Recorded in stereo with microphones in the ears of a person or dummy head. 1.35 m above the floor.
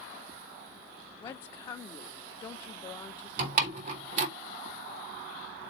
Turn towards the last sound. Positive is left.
turn(degrees=-45)  # may be behind; listen again after turning